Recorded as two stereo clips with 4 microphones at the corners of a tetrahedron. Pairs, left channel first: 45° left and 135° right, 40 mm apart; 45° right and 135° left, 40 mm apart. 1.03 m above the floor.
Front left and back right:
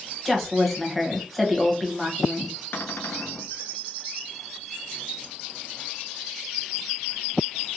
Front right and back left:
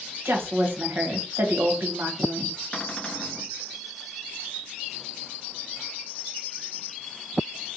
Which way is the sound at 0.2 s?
135° left.